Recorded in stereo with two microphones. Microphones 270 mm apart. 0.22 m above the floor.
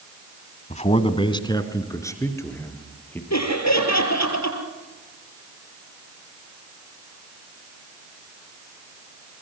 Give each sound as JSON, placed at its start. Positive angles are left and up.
{"t": 0.7, "sound": "a man speaking", "side_deg": 25, "distance_m": 1.1}
{"t": 3.3, "sound": "laughter", "side_deg": 65, "distance_m": 5.0}